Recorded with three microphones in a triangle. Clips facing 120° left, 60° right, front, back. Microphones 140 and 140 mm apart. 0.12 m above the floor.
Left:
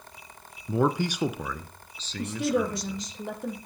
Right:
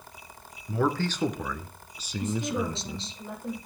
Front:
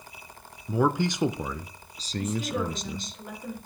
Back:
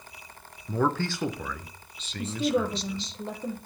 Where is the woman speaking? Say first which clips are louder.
Left 3 dB, back 3 dB; 120° left, 3.5 m.